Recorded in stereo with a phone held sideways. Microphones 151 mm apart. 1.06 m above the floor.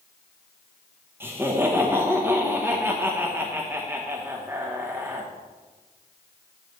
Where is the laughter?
15° right (ahead or behind), 1.0 m.